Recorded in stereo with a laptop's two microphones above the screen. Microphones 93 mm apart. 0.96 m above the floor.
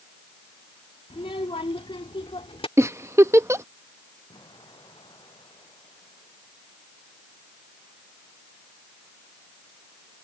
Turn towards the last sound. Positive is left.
turn(degrees=55)  # may be behind; listen again after turning